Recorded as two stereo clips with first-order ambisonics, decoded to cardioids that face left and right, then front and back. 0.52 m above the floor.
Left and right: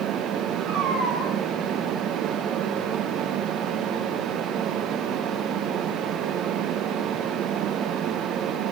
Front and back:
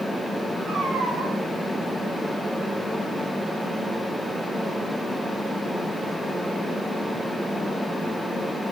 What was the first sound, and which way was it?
A cat meowing, 100° right.